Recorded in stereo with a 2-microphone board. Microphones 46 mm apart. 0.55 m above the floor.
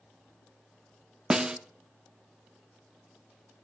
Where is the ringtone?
No ringtone in this recording.